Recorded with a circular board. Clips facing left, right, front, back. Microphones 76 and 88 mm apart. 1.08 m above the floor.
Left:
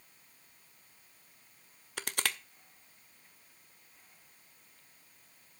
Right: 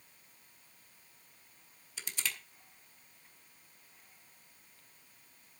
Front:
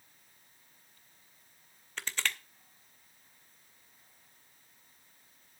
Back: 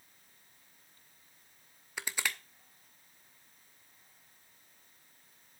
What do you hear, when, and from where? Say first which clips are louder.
2.0 s crushing: left 5 dB, even; 100° left, 0.7 m